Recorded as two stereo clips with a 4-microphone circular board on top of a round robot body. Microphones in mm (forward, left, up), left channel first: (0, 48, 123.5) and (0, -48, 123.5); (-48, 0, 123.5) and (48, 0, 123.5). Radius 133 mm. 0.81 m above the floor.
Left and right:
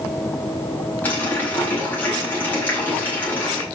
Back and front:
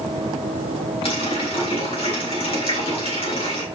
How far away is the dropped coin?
I don't hear a dropped coin.